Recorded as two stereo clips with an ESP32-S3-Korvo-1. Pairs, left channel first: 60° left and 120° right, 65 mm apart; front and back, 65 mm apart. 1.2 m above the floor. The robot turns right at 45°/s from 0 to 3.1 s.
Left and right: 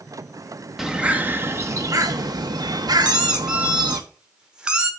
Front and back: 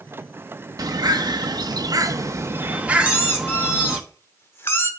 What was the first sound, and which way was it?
A bird, 155° left.